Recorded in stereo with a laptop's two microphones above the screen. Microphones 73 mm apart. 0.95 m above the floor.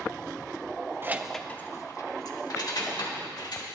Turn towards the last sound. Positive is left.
turn(degrees=70)  # may be behind; listen again after turning